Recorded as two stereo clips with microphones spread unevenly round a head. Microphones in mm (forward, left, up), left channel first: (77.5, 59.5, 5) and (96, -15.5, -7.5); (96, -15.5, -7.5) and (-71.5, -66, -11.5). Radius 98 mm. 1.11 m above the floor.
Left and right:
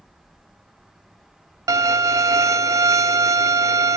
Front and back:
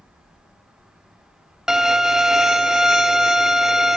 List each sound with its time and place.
1.7 s a violin: 75° right, 0.7 m